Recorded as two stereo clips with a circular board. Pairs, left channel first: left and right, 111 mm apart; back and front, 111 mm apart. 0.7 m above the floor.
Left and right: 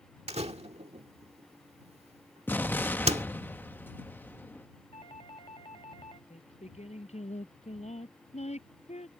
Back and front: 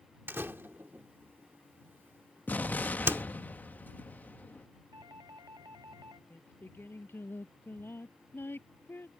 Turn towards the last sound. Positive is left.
turn(degrees=110)